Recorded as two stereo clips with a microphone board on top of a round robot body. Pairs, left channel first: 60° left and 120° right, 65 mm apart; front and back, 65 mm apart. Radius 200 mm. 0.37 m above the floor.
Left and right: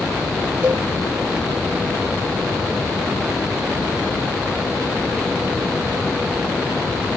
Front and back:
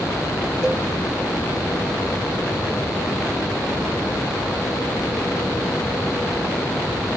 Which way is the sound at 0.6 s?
80° right.